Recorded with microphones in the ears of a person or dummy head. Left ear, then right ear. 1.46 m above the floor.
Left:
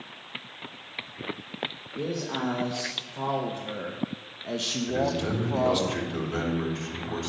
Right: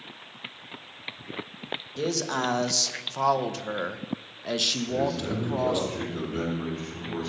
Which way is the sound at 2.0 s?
75° right (ahead or behind).